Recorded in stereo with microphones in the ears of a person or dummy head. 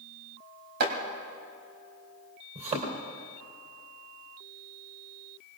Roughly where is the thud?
Right.